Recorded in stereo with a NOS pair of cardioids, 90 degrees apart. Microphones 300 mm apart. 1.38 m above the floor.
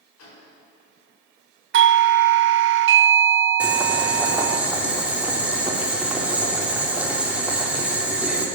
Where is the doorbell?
45° right, 0.6 m.